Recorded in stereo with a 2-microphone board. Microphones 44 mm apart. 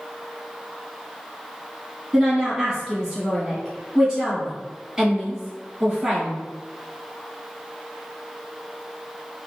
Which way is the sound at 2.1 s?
Centre (ahead or behind).